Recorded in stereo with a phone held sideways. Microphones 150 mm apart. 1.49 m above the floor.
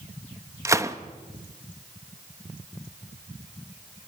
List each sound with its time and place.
0.7 s a gunshot: 20° right (ahead or behind), 0.8 m